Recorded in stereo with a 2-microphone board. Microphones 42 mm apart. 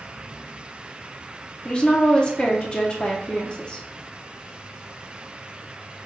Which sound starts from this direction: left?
A woman speaking, at 1.6 s.